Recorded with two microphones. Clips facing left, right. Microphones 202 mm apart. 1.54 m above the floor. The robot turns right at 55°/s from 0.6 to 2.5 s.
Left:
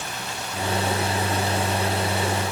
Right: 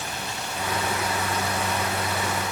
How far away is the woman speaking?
No woman speaking in this recording.